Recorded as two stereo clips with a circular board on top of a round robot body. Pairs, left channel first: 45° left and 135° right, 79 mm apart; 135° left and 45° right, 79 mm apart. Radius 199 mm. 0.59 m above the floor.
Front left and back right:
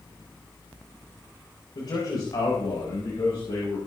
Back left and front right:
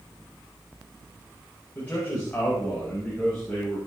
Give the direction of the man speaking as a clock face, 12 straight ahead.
10 o'clock.